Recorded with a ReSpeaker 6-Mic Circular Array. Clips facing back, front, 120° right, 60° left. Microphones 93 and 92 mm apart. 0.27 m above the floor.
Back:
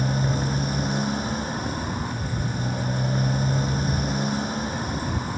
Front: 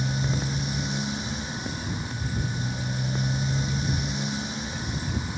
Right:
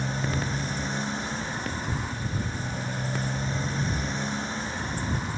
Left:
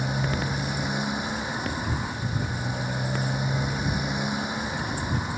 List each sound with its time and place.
0.0 s a motorcycle: 140° left